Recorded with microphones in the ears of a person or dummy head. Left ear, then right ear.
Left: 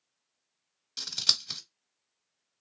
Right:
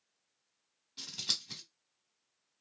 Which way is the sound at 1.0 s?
65° left (ahead or behind).